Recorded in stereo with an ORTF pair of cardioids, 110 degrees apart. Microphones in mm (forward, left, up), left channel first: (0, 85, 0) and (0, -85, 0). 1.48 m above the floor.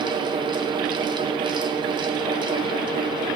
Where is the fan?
25° right, 0.9 m.